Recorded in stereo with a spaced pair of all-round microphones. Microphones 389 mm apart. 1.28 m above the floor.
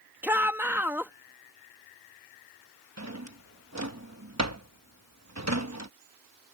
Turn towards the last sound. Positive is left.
turn(degrees=-40)  # may be behind; listen again after turning